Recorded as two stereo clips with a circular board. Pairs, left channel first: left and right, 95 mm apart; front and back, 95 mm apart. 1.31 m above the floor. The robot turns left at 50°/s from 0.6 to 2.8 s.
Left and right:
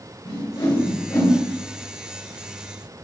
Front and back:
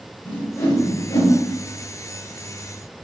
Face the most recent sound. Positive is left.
turn(degrees=-50)